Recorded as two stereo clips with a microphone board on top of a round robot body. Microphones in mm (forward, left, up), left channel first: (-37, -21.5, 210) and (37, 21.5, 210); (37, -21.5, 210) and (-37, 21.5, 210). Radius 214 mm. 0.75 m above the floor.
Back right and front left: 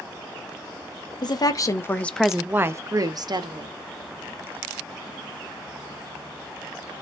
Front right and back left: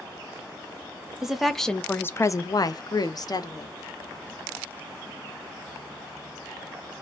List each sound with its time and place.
1.2 s a woman speaking: 125° right, 0.9 m; by 3.7 s 10° left, 1.1 m